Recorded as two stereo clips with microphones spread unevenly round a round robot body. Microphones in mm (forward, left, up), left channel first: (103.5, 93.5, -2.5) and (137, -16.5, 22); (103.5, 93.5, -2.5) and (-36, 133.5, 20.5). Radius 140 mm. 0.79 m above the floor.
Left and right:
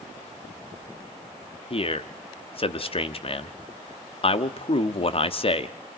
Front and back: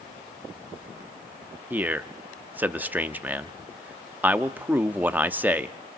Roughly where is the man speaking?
Left.